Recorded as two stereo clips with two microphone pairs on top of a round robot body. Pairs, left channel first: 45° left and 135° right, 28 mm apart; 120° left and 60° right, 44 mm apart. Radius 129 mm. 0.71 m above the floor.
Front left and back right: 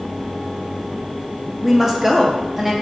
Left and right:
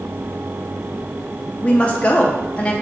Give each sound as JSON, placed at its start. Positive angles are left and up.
{"t": 1.6, "sound": "a woman speaking", "azimuth_deg": 155, "distance_m": 0.6}